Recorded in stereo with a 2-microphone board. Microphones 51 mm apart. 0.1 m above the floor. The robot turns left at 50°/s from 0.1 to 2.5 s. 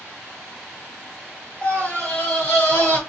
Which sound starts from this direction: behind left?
A scream, at 1.6 s.